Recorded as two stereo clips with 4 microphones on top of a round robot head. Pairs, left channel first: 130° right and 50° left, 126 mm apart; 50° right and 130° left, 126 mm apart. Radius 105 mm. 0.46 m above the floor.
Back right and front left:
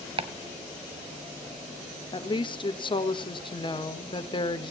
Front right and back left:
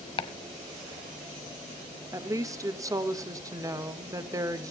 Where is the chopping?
Straight ahead, 1.0 m.